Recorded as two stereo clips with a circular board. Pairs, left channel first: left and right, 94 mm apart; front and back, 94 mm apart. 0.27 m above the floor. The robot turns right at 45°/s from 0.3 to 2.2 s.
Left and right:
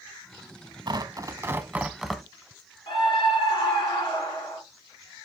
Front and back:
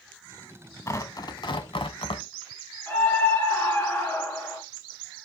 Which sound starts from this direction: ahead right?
Tearing paper, at 0.9 s.